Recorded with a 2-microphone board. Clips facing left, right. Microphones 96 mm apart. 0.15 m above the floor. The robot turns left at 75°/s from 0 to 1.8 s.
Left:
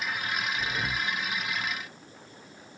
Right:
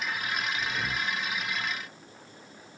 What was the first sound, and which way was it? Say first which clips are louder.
Breathing: even; 30° left.